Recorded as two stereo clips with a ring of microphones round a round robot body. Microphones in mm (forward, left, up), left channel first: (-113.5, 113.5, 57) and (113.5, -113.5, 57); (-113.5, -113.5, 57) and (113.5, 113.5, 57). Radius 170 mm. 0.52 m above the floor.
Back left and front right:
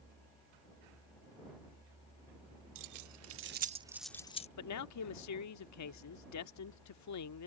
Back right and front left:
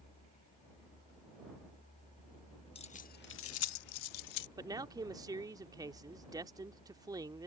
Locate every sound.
2.8 s keys jangling: 65° right; by 4.5 s 155° right
4.6 s a man speaking: 120° left